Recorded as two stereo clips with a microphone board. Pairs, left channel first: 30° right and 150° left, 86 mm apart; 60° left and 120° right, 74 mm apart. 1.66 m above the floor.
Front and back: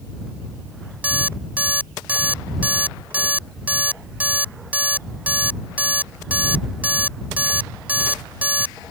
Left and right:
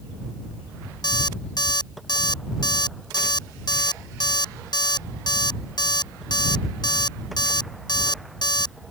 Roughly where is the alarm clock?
Left.